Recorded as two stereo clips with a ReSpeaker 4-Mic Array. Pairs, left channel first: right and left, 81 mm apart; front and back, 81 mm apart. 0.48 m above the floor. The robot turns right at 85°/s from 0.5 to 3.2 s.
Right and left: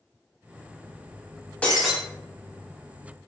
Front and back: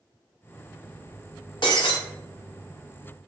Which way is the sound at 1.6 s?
15° right.